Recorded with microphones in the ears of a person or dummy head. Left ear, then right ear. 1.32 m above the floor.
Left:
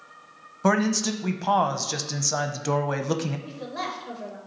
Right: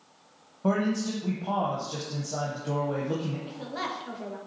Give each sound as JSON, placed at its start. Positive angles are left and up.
{"t": 0.6, "sound": "a man speaking", "side_deg": 65, "distance_m": 0.7}
{"t": 3.5, "sound": "a woman speaking", "side_deg": -25, "distance_m": 1.7}